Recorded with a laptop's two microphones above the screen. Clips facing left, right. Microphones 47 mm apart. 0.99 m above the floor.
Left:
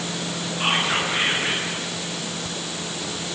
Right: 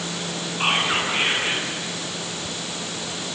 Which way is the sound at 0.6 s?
25° right (ahead or behind).